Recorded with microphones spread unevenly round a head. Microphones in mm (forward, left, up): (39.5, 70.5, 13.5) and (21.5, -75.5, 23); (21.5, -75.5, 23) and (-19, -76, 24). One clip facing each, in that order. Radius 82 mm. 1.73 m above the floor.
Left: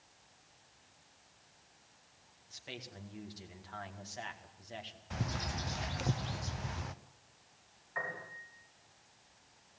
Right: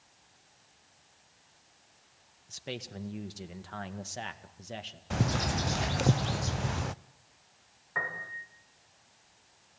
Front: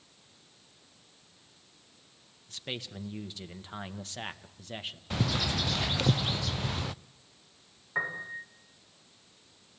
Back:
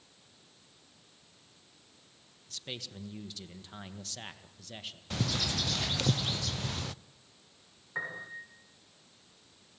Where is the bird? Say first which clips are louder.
Right 9 dB, front 3 dB; 75° right, 0.6 m.